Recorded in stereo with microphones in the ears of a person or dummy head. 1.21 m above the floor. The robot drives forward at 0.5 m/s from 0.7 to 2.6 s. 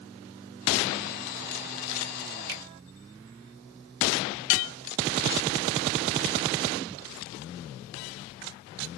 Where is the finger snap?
60° right (ahead or behind), 0.6 m; by 2.6 s 55° right (ahead or behind), 0.6 m.